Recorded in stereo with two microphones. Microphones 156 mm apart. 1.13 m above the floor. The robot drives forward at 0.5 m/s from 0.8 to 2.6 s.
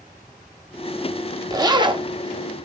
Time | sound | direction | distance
1.5 | a zipper | 25° right (ahead or behind) | 0.8 m